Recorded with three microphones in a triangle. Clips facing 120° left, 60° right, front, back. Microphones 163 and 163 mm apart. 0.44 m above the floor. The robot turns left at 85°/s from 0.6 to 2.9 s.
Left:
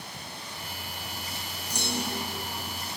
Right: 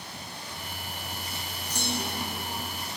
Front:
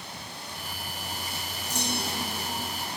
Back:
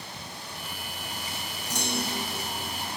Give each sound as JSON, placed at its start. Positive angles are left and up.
{"t": 1.7, "sound": "a clunk", "azimuth_deg": -160, "distance_m": 2.5}